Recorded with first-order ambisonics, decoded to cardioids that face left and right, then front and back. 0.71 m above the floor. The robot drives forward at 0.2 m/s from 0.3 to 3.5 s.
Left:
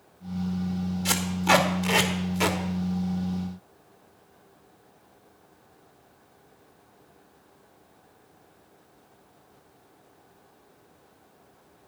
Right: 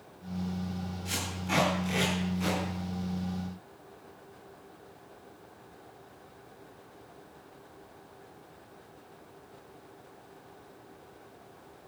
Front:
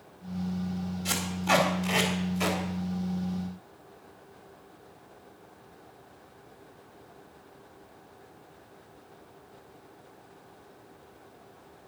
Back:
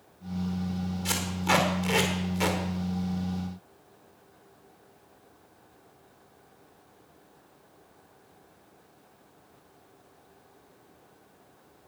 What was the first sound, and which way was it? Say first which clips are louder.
Tape being pulled: left 12 dB, even; 105° left.